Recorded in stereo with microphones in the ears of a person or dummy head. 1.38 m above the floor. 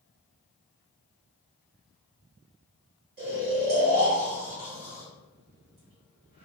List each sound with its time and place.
3.2 s snoring: 45° right (ahead or behind), 1.9 m